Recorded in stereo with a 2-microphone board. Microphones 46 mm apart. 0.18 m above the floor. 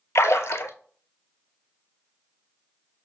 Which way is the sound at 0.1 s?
85° left.